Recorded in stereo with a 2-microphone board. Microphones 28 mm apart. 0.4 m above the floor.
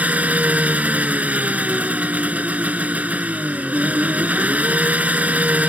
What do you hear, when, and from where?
0.0 s an engine running: 65° right (ahead or behind)